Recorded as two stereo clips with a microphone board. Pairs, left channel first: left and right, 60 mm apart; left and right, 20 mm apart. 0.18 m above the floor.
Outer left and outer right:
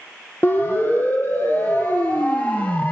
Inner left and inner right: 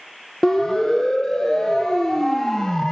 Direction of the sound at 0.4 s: 40° left (ahead or behind).